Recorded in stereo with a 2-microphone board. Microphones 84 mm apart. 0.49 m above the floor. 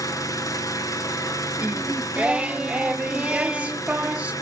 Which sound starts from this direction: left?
An engine running, at 0.0 s.